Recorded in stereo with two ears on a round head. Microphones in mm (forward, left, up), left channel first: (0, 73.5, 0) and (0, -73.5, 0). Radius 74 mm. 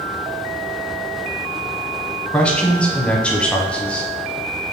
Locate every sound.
2.3 s a man speaking: 5° left (ahead or behind), 1.3 m